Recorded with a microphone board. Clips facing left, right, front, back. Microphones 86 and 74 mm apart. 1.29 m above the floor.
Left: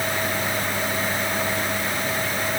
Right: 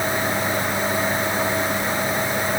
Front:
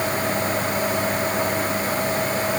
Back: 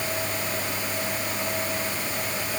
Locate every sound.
Only background noise.